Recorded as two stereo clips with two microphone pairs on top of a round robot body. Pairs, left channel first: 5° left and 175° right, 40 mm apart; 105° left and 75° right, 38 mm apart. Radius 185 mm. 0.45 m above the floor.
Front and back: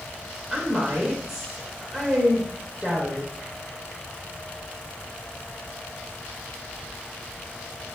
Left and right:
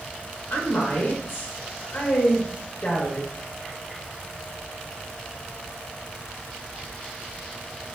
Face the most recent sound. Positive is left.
turn(degrees=120)